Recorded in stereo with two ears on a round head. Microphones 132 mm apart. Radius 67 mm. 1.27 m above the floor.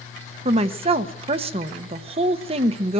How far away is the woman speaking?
About 1.1 m.